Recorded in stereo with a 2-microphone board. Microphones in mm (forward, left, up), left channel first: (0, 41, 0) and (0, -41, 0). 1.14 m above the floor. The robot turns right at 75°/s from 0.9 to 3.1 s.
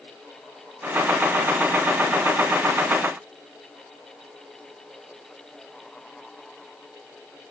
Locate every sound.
Only background noise.